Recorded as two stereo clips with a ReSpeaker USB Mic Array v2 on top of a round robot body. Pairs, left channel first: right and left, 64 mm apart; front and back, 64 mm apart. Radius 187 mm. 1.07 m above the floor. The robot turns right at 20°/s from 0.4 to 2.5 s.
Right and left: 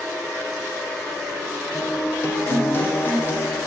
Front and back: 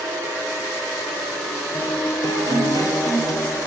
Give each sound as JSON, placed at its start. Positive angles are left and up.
{"t": 1.7, "sound": "a guitar", "azimuth_deg": -50, "distance_m": 2.5}